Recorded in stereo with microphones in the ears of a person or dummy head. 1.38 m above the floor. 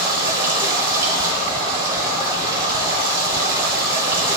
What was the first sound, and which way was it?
Running water, 20° right (ahead or behind).